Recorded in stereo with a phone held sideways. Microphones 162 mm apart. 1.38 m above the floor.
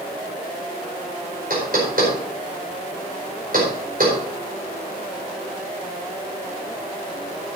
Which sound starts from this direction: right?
Knocking, at 1.5 s.